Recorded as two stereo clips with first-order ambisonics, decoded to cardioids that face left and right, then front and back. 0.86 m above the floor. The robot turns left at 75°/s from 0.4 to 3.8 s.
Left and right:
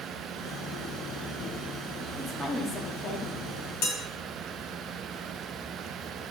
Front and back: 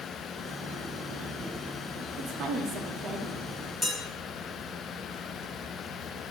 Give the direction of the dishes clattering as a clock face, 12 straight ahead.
9 o'clock.